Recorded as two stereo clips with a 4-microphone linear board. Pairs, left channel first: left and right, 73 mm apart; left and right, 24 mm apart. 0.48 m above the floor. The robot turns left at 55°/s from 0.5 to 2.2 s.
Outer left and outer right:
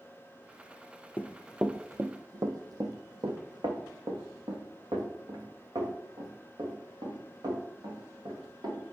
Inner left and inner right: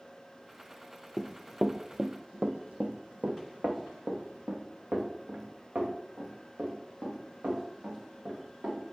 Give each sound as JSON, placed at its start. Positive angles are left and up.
{"t": 1.2, "sound": "running footsteps", "side_deg": 25, "distance_m": 0.5}